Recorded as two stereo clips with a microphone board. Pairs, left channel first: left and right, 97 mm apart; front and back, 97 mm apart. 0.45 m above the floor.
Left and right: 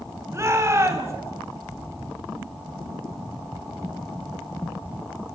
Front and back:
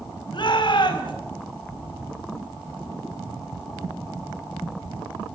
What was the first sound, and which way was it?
A shout, 30° right.